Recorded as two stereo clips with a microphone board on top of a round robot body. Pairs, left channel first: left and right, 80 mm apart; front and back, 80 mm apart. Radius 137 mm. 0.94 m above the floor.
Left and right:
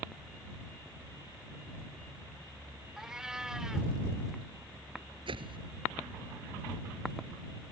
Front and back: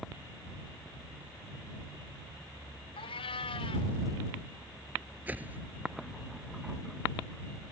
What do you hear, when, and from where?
3.0 s a cat meowing: 10° right
5.3 s a whoosh: 110° right